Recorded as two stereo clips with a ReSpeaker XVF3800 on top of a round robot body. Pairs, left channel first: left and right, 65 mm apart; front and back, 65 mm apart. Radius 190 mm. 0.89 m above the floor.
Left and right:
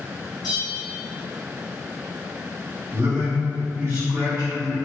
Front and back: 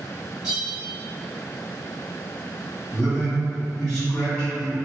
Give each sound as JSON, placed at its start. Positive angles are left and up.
{"t": 0.4, "sound": "a bell", "azimuth_deg": 105, "distance_m": 1.1}
{"t": 2.9, "sound": "a man speaking", "azimuth_deg": -65, "distance_m": 1.4}